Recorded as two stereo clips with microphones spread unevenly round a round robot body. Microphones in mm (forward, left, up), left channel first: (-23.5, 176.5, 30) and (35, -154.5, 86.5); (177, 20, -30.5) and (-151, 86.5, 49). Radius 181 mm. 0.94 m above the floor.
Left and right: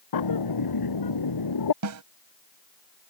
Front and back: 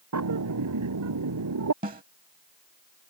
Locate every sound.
0.1 s a bird: 130° left
1.8 s a snare drum: 125° right